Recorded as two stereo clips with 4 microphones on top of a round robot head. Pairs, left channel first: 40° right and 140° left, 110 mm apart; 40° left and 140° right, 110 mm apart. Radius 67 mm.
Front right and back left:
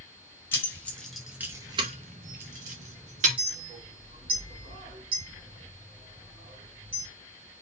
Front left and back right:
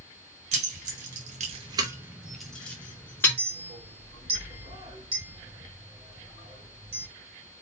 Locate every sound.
0.5 s keys jangling: 110° right, 1.1 m; by 3.4 s 110° left, 1.4 m
3.4 s a clink: straight behind, 1.8 m